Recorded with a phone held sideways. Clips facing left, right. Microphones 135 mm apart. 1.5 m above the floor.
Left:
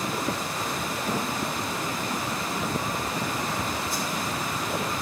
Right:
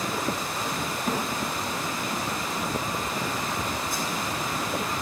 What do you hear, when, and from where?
1.1 s a thud: 50° right (ahead or behind), 2.5 m
3.9 s a whoosh: 55° right (ahead or behind), 3.5 m